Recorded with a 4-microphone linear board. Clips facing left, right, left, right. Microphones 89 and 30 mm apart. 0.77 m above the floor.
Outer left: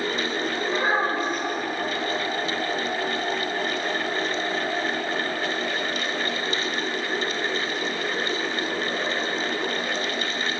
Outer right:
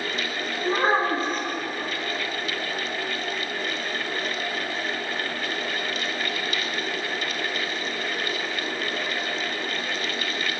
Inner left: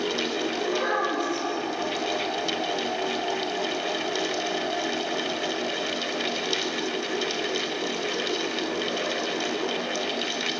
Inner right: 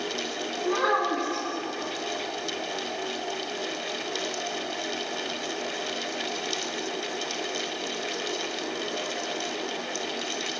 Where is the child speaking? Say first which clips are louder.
Outer right 3 dB, inner right 3 dB; 35° right (ahead or behind), 4 m.